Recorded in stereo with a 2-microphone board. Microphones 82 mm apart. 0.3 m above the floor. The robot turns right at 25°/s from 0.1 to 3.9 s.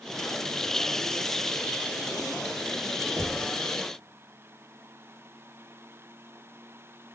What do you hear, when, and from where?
3.2 s knocking: 30° right (ahead or behind), 0.6 m